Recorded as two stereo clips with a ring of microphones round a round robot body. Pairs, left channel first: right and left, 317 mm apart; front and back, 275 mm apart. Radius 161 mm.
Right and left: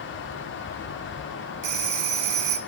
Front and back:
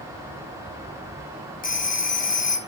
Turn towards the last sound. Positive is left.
turn(degrees=60)